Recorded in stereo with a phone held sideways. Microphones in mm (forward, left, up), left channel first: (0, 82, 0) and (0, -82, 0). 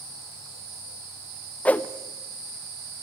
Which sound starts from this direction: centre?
A whoosh, at 1.6 s.